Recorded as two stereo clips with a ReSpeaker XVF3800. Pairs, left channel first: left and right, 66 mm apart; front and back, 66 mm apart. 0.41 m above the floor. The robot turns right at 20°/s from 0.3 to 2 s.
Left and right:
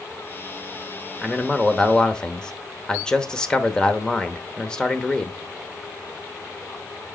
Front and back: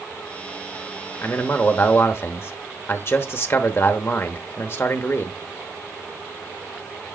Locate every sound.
1.2 s a man speaking: 5° left, 0.9 m; by 5.4 s 20° left, 0.9 m